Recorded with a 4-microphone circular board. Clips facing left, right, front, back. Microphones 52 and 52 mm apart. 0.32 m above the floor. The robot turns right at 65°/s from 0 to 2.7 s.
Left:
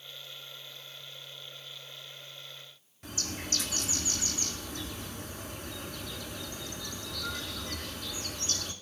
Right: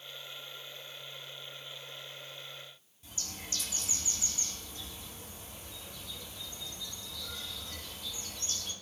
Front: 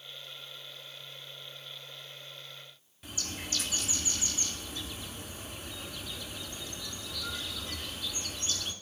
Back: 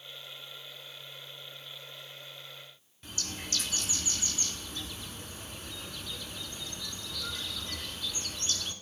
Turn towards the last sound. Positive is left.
turn(degrees=90)